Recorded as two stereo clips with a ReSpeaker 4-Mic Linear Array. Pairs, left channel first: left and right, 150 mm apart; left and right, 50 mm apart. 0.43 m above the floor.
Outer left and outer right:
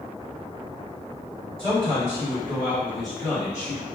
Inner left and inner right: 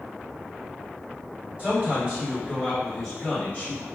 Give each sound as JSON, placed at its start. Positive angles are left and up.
{"t": 1.6, "sound": "a man speaking", "side_deg": -35, "distance_m": 1.7}